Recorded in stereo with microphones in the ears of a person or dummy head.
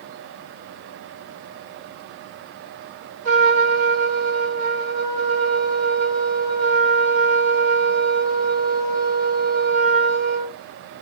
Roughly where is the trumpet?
Right.